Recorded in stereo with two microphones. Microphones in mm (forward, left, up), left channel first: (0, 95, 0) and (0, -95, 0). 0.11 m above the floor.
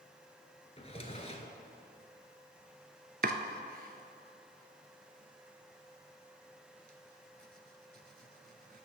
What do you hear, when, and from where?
0.8 s a drawer: 35° left (ahead or behind), 0.8 m
3.2 s chopping: 55° right (ahead or behind), 0.6 m